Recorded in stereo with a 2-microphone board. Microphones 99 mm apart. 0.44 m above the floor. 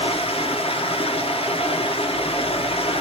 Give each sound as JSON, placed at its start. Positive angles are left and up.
{"t": 0.0, "sound": "running water", "side_deg": 75, "distance_m": 1.1}